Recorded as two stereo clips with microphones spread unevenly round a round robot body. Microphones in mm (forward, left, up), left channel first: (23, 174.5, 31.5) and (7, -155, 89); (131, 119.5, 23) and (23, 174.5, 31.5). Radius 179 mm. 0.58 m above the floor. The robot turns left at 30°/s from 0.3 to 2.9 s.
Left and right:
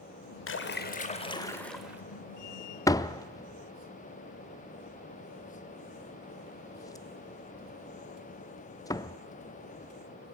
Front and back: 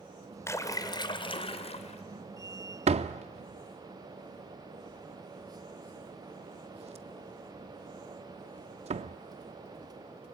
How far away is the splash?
About 2 m.